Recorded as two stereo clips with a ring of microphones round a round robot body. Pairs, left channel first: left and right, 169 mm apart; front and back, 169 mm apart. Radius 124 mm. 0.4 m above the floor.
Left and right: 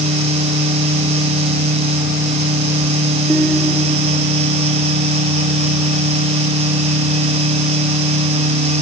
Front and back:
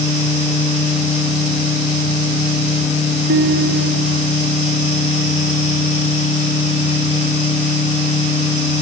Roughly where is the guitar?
Behind.